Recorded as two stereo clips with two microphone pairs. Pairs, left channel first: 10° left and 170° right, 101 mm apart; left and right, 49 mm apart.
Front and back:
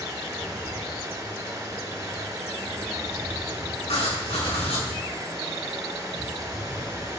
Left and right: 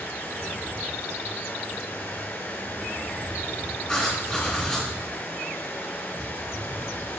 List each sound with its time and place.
0.0 s running water: 130° left, 1.8 m
3.9 s writing: 15° left, 4 m